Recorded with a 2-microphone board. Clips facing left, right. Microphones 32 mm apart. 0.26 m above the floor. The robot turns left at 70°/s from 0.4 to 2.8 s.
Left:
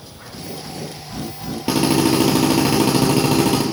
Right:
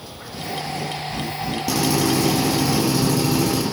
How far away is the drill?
About 4.5 m.